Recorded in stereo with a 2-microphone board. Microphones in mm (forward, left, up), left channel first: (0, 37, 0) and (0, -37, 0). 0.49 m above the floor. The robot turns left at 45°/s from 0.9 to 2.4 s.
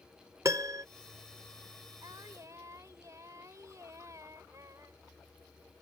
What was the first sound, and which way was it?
A piano, 45° right (ahead or behind).